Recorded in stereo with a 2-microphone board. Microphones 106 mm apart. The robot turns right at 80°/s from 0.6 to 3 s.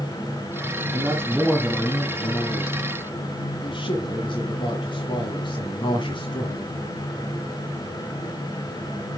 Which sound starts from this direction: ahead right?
A man speaking, at 0.9 s.